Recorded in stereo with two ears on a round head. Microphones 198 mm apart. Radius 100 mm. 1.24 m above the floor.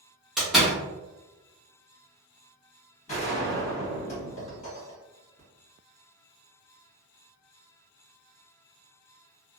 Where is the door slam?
Centre (ahead or behind), 0.8 m.